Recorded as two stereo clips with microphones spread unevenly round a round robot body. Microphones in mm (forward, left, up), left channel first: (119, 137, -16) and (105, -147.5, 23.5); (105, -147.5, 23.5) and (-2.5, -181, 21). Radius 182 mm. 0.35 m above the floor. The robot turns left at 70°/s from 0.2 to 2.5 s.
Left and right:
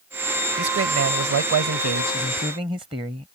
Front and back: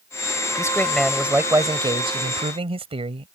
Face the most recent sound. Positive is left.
turn(degrees=-170)